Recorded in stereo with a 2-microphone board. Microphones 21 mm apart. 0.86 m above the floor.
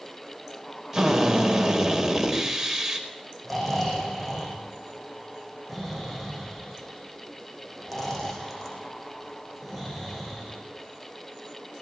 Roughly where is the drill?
Centre.